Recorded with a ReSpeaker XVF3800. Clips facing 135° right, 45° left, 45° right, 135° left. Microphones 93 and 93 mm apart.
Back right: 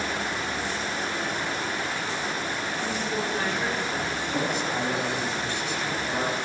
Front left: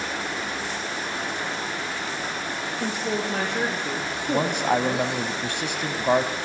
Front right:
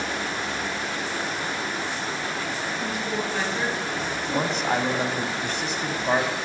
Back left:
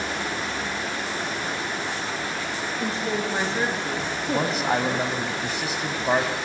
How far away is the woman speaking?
About 6.5 m.